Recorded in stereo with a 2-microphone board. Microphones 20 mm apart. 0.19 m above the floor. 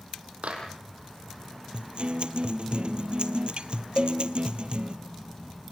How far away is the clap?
About 5 m.